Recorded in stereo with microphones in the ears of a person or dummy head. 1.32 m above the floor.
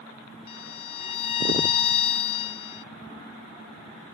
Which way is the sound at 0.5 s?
40° left (ahead or behind).